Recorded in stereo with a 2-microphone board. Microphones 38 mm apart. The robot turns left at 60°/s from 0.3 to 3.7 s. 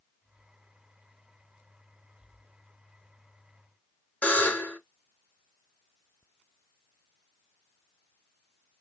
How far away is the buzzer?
About 1.3 m.